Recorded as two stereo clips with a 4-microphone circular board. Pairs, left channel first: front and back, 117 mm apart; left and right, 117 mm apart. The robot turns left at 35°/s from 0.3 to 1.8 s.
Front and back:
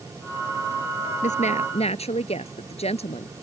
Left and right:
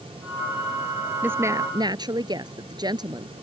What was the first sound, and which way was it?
A woman speaking, 15° right.